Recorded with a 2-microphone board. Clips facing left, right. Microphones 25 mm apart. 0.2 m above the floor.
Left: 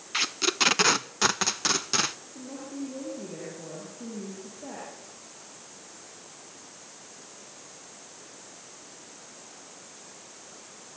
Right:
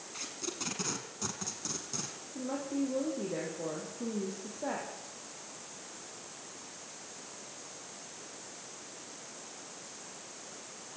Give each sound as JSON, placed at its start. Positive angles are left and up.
{"t": 0.1, "sound": "tape being pulled", "side_deg": 60, "distance_m": 0.7}
{"t": 2.4, "sound": "a woman speaking", "side_deg": -30, "distance_m": 8.0}